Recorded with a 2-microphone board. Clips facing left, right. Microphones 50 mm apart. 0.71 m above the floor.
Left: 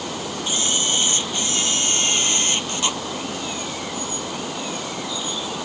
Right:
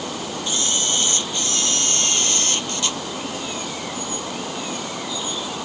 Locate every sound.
0.5 s a camera shutter: 20° left (ahead or behind)